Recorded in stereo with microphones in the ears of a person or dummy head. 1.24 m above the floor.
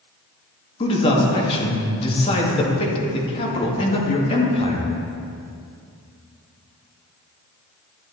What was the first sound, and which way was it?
A man speaking, 30° left (ahead or behind).